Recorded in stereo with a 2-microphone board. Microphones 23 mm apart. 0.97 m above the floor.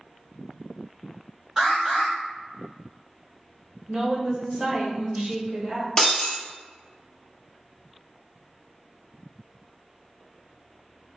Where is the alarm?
30° right (ahead or behind), 2.0 m.